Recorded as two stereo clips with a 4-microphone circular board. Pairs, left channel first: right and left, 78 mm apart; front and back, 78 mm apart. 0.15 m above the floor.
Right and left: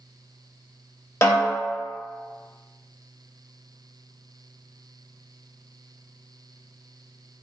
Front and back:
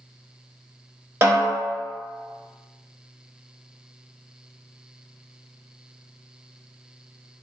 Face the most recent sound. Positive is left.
turn(degrees=-125)